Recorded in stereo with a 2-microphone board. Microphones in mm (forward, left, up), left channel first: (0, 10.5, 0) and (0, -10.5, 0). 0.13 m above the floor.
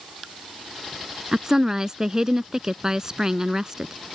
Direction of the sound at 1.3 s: 25° right (ahead or behind).